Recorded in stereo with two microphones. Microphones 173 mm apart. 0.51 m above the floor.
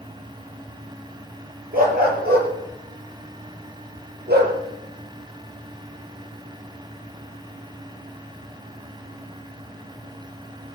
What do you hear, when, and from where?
1.7 s a dog barking: 60° right (ahead or behind), 4.5 m; by 4.6 s 85° right, 4.5 m